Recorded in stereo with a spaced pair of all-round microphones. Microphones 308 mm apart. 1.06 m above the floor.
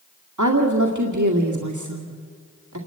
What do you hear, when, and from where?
0.4 s a woman speaking: 75° right (ahead or behind), 2 m